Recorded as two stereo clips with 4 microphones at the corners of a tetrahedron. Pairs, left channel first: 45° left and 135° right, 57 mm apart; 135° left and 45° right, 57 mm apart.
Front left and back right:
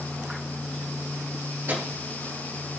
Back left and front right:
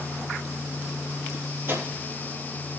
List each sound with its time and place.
1.7 s a microwave: 85° right, 3 m